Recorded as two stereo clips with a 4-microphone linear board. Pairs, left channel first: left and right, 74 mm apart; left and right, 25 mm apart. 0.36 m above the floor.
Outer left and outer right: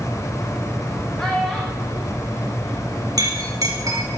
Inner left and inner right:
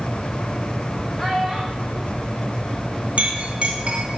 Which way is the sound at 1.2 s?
5° left (ahead or behind).